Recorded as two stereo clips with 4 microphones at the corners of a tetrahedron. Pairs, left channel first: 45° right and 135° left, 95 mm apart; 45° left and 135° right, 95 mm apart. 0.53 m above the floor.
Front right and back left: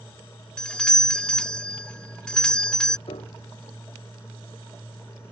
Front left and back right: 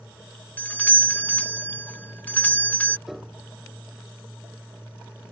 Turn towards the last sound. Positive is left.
turn(degrees=-50)